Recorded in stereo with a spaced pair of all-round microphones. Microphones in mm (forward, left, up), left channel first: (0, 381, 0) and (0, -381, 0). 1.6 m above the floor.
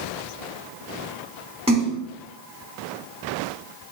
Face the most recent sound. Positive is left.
turn(degrees=-10)  # may be behind; listen again after turning